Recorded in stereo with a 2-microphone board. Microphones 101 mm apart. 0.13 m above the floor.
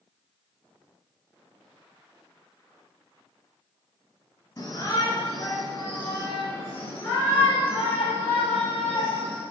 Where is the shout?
30° left (ahead or behind), 1.8 m; by 9.4 s 15° left (ahead or behind), 3.5 m.